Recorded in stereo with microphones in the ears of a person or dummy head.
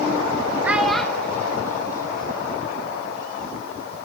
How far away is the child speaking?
About 1.2 m.